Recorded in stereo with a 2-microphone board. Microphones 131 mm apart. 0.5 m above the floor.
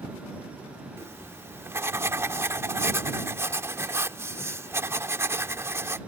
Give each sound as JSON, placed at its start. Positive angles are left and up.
{"t": 1.0, "sound": "writing", "side_deg": -20}